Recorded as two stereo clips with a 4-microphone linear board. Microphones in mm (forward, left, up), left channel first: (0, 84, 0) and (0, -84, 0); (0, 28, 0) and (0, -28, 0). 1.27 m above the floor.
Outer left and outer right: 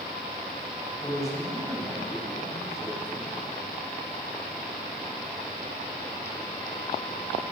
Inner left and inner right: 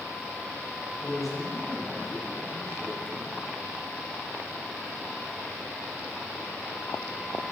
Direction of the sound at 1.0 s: Centre (ahead or behind).